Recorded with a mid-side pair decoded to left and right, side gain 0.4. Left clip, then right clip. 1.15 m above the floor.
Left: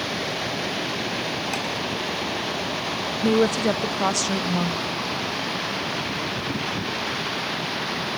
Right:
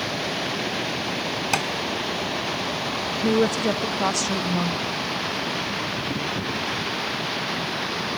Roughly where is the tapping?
Ahead right.